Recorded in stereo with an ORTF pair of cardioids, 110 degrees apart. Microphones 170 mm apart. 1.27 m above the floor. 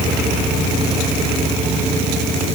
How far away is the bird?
I don't hear a bird.